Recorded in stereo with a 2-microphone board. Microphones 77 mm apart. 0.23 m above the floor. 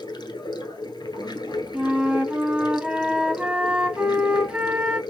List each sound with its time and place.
0.0 s running water: 70° left (ahead or behind), 1.2 m
1.7 s a flute: 15° right (ahead or behind), 0.8 m